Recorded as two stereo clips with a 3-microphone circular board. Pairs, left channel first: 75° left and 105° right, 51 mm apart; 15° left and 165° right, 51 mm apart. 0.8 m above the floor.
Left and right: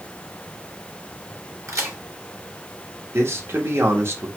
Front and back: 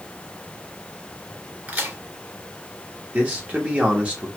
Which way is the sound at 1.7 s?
105° right.